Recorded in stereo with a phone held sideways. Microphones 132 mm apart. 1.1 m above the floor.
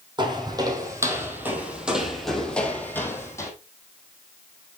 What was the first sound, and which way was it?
Footsteps, 35° right (ahead or behind).